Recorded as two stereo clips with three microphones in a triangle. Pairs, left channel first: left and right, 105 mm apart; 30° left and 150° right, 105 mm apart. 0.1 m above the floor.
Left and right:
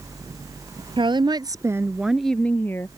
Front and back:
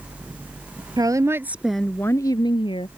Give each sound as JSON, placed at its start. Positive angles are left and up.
{"t": 1.0, "sound": "a woman speaking", "azimuth_deg": -110}